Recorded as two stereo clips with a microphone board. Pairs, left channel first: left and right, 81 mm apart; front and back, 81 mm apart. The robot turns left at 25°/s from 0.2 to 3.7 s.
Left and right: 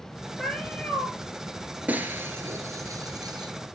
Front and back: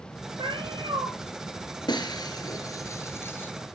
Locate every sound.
0.4 s a cat meowing: 175° left, 4 m; by 1.1 s 160° left, 4 m
1.9 s breaking glass: 20° right, 2 m; by 3.5 s 65° right, 2 m